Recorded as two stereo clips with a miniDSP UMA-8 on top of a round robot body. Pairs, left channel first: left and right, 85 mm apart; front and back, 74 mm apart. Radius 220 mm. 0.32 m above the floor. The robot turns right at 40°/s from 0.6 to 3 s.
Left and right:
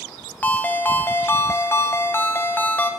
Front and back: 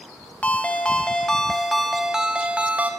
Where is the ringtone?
45° left, 0.6 m; by 2.9 s 140° left, 0.6 m.